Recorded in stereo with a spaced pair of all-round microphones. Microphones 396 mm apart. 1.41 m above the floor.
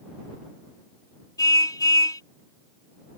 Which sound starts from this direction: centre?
A car horn, at 1.4 s.